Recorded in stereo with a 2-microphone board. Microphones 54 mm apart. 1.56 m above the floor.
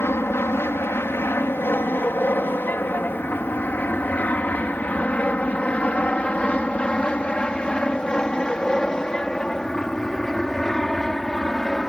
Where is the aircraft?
50° left (ahead or behind); by 11.9 s 5° left (ahead or behind).